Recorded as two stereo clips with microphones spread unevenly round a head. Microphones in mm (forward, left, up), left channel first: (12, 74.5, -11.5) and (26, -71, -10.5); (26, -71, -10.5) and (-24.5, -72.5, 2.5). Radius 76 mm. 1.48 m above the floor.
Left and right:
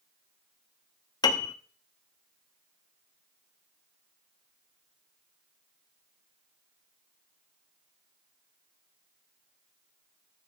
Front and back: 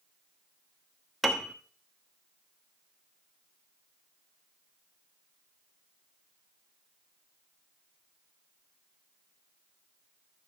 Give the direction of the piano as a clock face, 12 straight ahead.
8 o'clock.